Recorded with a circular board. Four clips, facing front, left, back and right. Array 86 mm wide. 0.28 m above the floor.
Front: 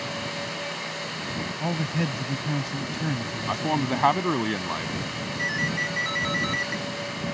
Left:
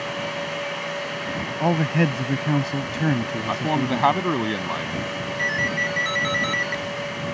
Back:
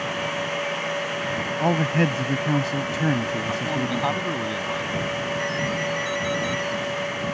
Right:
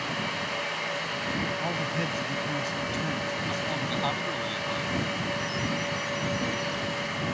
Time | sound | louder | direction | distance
1.6 | a man speaking | left 9 dB, back 7 dB | 135° left | ?
3.5 | a man speaking | left 8 dB, even | 60° left | ?
5.4 | a ringtone | left 5 dB, back 3 dB | 70° left | ?